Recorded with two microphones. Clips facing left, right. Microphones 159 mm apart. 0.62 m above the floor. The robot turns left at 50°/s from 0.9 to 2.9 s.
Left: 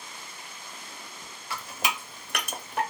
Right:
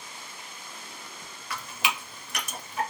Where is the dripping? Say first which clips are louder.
Even; 30° left (ahead or behind), 0.6 m; by 2.8 s 75° left (ahead or behind), 0.6 m.